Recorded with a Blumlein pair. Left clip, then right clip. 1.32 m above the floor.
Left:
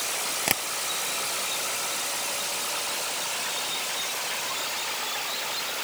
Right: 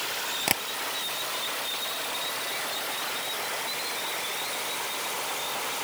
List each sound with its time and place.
0.5 s tapping: straight ahead